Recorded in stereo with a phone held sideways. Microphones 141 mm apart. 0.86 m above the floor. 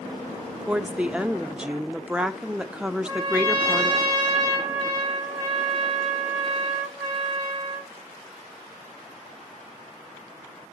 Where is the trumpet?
5° left (ahead or behind), 5.5 m.